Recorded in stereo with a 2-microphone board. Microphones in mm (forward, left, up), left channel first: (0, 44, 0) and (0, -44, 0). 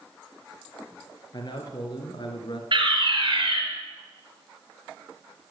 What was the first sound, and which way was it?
A man speaking, 50° left (ahead or behind).